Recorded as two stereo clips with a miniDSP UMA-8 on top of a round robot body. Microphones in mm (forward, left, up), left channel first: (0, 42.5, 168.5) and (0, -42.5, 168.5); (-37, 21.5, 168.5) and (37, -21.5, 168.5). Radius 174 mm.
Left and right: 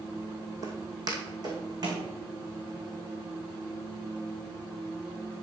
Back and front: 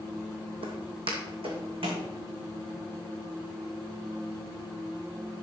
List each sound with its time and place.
0.6 s footsteps: 40° right, 1.5 m; by 2.0 s 50° right, 3 m